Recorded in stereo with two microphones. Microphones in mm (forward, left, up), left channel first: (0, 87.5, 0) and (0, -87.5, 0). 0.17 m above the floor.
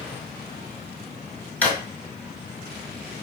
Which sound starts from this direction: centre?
A drawer, at 1.6 s.